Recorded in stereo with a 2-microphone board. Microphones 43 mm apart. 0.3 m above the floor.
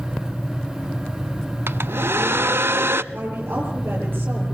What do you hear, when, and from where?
1.7 s a hair dryer: 75° right (ahead or behind), 0.6 m
3.1 s a woman speaking: 60° right (ahead or behind), 8 m